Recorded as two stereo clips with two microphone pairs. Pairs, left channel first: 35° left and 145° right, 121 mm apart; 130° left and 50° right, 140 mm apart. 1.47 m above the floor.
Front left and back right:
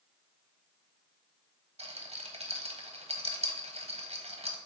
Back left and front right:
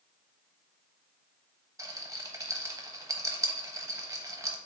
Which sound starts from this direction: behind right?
A rattle, at 1.8 s.